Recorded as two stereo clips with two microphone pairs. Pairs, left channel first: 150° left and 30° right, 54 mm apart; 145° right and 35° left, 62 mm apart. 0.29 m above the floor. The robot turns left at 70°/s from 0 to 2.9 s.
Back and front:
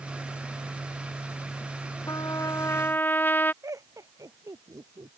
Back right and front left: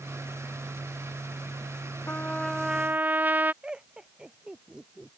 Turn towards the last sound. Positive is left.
turn(degrees=-40)